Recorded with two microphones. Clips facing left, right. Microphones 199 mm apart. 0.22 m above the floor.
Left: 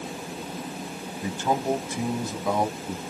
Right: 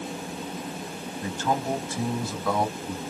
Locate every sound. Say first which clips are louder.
1.2 s a man speaking: left 2 dB; 15° left (ahead or behind), 1.0 m